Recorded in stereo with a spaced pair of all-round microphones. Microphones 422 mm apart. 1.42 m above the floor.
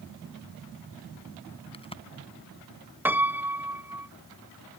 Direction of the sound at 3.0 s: 5° right (ahead or behind).